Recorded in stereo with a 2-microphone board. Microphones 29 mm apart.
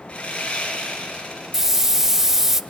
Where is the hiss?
10° right (ahead or behind), 0.6 m.